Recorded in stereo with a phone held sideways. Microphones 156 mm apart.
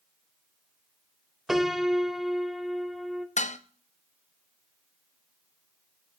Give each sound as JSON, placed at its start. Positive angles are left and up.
{"t": 1.5, "sound": "a piano", "side_deg": 0, "distance_m": 0.8}
{"t": 3.4, "sound": "dishes clattering", "side_deg": 50, "distance_m": 0.7}